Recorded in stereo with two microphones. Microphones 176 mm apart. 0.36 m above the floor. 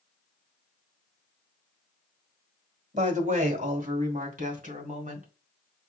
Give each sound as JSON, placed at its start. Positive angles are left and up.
{"t": 2.9, "sound": "a woman speaking", "side_deg": -45, "distance_m": 1.4}